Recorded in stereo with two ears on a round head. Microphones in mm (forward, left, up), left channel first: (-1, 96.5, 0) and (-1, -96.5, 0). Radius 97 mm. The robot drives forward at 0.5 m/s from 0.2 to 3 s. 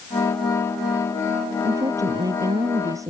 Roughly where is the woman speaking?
Centre.